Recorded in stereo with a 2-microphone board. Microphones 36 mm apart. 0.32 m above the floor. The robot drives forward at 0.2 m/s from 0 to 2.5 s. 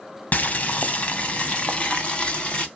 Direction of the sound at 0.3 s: 50° left (ahead or behind).